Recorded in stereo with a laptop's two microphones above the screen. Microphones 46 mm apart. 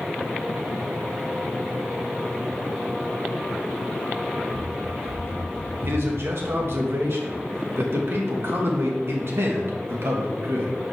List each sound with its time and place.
4.5 s running footsteps: 70° right (ahead or behind), 3 m; by 6.8 s 5° right (ahead or behind), 1.3 m
5.8 s a man speaking: 60° right (ahead or behind), 1.5 m